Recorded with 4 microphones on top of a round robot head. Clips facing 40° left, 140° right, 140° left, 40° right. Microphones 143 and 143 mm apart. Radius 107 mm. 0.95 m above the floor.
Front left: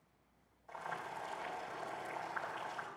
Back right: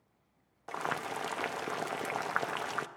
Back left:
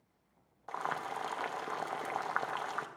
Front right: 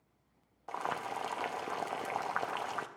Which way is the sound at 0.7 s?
120° right.